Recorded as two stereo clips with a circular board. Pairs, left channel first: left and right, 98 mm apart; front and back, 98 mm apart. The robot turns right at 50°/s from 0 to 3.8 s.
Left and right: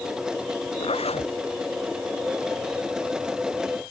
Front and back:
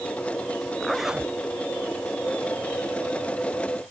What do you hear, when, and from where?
0.8 s a zipper: 80° left; by 1.3 s 105° left